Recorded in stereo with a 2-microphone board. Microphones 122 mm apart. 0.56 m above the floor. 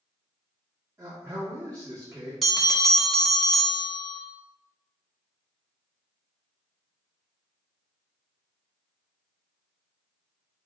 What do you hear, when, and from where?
1.0 s a man speaking: 25° right (ahead or behind), 1.4 m
2.4 s a bell: centre (ahead or behind), 1.1 m